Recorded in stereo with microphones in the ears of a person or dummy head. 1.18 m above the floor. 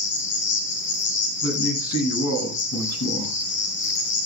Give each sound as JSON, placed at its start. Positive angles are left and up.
{"t": 0.0, "sound": "an insect", "side_deg": 65, "distance_m": 5.5}
{"t": 1.4, "sound": "a man speaking", "side_deg": 80, "distance_m": 8.5}